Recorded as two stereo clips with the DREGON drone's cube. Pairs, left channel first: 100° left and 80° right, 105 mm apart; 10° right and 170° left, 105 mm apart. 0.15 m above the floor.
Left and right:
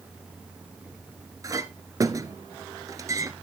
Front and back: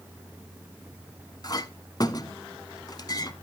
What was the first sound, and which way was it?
A clink, 40° right.